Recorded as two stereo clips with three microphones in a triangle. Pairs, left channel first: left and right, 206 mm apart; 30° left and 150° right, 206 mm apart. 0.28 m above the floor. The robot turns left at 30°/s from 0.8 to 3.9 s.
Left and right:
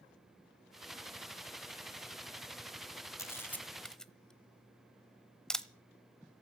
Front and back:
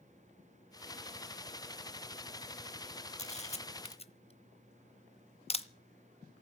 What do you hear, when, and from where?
3.2 s a camera shutter: 25° left, 0.8 m; by 5.7 s 5° left, 0.8 m